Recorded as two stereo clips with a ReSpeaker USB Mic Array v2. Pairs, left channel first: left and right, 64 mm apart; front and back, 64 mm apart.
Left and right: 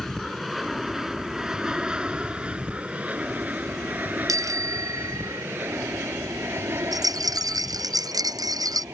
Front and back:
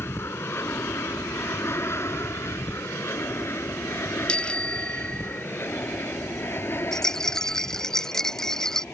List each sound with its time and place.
0.0 s an aircraft: 5° left; by 8.9 s 55° right
4.3 s a bicycle bell: 75° right
6.9 s a rattle: 80° right